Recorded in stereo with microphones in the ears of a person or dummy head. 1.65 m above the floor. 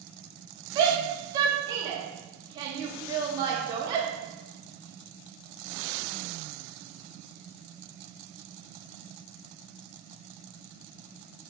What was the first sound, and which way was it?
A shout, 20° right (ahead or behind).